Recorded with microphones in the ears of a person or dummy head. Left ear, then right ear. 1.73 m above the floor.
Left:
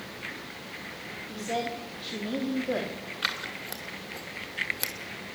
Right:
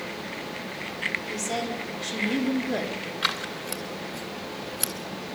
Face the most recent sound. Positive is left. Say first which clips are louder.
# right 3 dB
turn(degrees=5)  # may be behind; listen again after turning